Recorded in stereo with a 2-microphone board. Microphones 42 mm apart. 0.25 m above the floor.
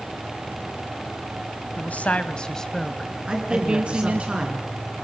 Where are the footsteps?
No footsteps in this recording.